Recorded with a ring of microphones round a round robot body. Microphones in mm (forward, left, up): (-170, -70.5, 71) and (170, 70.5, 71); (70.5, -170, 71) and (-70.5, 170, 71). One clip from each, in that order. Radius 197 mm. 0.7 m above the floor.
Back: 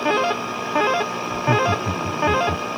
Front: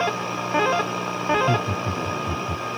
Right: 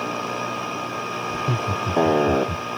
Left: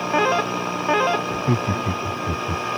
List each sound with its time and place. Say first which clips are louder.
1.3 s laughter: back 1 dB, left 1 dB; 105° left; by 2.6 s 125° left